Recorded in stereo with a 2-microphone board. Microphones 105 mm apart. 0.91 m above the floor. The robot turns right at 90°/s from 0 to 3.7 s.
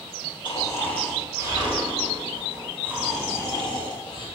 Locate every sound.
0.5 s snoring: 120° left, 3 m; by 4.3 s 55° left, 3 m